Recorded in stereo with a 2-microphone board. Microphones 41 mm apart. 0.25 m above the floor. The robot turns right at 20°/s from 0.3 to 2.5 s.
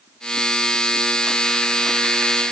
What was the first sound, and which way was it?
Only background noise.